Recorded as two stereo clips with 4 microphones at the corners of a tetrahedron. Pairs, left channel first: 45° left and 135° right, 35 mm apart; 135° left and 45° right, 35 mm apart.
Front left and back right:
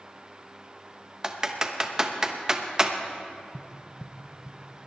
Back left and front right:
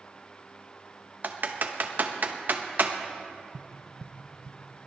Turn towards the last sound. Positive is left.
turn(degrees=-20)